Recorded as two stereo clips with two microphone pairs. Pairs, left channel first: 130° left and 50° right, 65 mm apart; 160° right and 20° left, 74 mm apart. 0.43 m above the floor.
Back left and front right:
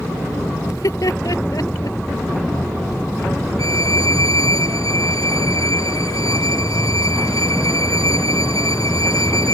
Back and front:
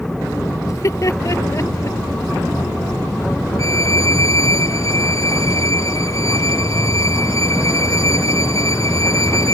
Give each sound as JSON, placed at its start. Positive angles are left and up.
{"t": 0.7, "sound": "laughter", "azimuth_deg": 160}
{"t": 3.6, "sound": "a violin", "azimuth_deg": 155}